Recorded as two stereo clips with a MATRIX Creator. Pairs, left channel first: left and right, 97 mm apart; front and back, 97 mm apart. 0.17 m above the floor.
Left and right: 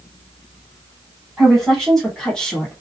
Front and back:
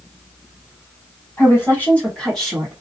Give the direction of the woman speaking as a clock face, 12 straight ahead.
12 o'clock.